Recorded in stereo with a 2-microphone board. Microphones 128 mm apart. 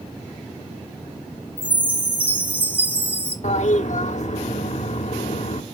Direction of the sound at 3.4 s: 65° left (ahead or behind).